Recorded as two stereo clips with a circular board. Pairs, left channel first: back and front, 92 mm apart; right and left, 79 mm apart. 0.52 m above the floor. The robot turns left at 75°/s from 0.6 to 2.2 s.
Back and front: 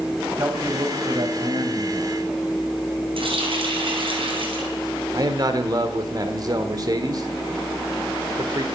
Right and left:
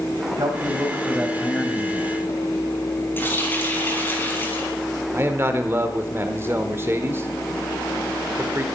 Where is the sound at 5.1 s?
35° left, 1.4 m.